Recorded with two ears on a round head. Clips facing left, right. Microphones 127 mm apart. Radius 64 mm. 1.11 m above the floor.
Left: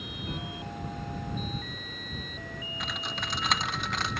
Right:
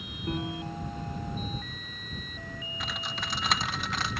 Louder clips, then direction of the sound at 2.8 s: Even; centre (ahead or behind).